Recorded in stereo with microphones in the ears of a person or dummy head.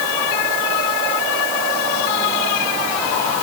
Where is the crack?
I don't hear a crack.